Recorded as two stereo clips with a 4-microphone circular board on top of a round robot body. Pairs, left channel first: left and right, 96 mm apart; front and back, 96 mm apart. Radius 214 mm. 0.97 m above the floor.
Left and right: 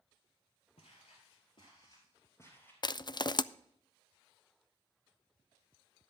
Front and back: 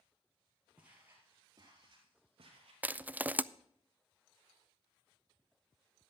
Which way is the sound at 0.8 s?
100° left.